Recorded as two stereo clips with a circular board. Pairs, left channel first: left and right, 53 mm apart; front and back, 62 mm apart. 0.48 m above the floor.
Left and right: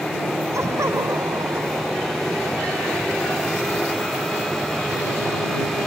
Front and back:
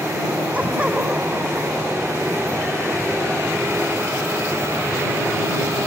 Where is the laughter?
115° right; by 2.2 s 100° right.